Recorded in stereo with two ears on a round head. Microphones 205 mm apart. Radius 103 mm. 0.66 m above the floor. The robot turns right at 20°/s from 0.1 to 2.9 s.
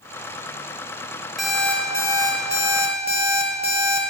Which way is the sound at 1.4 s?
Straight ahead.